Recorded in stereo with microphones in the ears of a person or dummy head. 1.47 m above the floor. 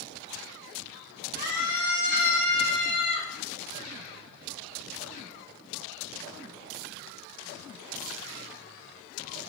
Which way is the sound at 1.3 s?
55° left (ahead or behind).